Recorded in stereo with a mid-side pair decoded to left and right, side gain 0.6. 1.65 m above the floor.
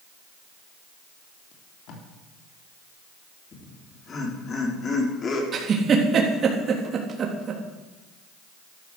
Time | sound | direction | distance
1.5 | tape being pulled | 65° left | 4 m
3.5 | laughter | 35° left | 5 m
5.5 | a giggle | 40° right | 3.5 m